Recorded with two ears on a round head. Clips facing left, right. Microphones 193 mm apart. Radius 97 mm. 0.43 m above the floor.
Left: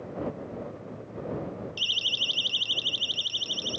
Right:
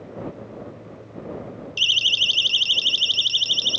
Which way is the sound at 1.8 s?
70° right (ahead or behind).